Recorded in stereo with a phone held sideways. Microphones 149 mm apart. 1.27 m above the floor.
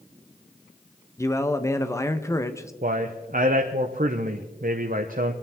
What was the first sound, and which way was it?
A man speaking, 20° left (ahead or behind).